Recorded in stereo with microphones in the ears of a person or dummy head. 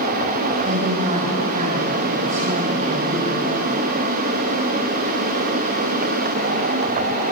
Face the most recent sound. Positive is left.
turn(degrees=-35)  # may be behind; listen again after turning